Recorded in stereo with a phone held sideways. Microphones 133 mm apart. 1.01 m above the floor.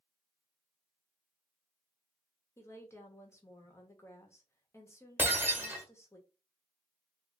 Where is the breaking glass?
15° right (ahead or behind), 1.2 m.